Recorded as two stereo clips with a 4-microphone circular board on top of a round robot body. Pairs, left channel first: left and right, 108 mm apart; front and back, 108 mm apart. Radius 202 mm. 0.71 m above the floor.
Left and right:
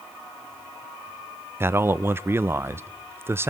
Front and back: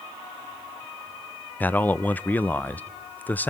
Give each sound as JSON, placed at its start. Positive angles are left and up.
{"t": 1.6, "sound": "a man speaking", "azimuth_deg": -55, "distance_m": 0.7}